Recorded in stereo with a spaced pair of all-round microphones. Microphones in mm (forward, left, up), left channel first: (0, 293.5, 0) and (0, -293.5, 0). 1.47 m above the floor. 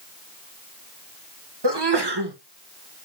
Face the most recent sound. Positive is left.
turn(degrees=-45)  # may be behind; listen again after turning